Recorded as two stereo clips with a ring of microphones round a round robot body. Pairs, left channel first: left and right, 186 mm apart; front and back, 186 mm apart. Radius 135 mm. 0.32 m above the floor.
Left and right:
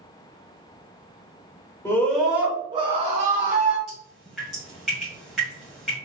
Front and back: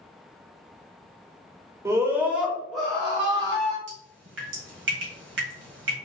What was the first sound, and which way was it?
A scream, 135° left.